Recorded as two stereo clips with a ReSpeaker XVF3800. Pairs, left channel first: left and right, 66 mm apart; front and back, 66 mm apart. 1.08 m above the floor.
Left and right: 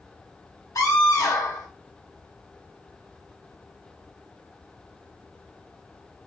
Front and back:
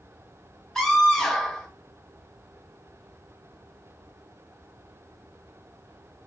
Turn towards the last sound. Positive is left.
turn(degrees=80)